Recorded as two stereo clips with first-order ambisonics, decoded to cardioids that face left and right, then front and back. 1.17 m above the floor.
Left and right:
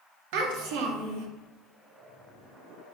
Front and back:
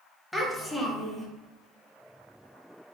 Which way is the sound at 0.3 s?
85° right.